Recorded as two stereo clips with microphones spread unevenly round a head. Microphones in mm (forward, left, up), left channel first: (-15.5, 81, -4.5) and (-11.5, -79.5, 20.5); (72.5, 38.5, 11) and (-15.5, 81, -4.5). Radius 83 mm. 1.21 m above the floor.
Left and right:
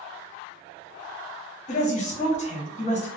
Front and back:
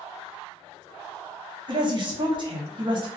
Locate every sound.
1.7 s a woman speaking: 130° left, 1.0 m